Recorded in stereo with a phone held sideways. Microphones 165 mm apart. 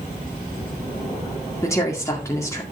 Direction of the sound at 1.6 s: 20° left (ahead or behind).